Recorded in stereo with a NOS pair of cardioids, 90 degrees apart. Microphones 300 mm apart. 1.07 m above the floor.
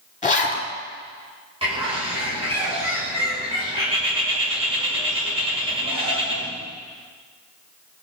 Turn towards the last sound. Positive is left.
turn(degrees=-20)